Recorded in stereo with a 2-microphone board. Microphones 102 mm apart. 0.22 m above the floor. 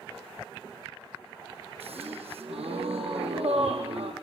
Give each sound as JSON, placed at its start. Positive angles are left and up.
{"t": 1.8, "sound": "a gasp", "side_deg": -80, "distance_m": 5.0}